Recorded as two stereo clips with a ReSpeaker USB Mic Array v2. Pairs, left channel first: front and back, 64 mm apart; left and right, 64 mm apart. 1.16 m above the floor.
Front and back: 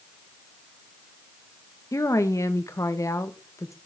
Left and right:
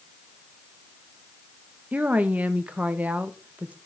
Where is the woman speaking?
25° right, 1.4 m.